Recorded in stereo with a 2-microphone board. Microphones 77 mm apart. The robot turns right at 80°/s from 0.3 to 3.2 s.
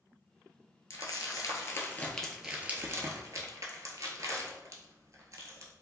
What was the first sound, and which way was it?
Crumpling, 45° left (ahead or behind).